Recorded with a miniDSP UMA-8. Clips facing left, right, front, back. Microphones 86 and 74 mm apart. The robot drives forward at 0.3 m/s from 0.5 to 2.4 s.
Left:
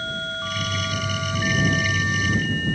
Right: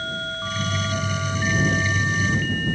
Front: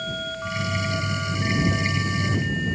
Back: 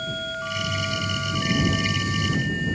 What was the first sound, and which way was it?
Only background noise.